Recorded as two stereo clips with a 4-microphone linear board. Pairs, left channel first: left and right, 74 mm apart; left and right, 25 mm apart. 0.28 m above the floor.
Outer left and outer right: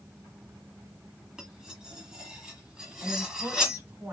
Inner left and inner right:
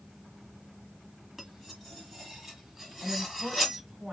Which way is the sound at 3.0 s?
20° right (ahead or behind).